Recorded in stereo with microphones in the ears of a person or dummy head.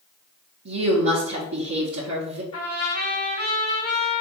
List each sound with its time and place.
0.7 s a woman speaking: 75° right (ahead or behind), 0.9 m
2.5 s a trumpet: 30° left (ahead or behind), 1.4 m